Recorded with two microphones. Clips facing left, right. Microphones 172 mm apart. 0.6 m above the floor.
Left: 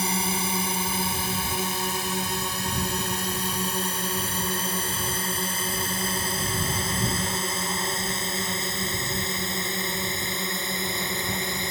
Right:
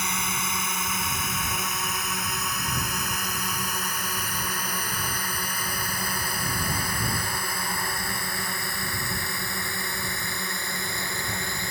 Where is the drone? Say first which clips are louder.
Left 5 dB; 30° left (ahead or behind); by 11.7 s 20° left (ahead or behind).